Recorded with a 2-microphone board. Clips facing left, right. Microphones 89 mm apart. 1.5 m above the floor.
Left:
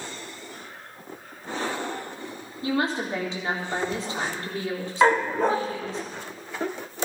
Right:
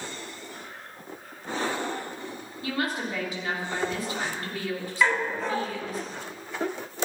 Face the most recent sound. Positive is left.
turn(degrees=45)  # may be behind; listen again after turning